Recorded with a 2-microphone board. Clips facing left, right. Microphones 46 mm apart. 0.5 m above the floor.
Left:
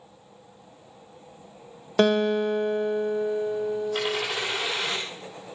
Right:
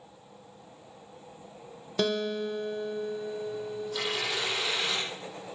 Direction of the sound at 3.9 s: 45° left (ahead or behind).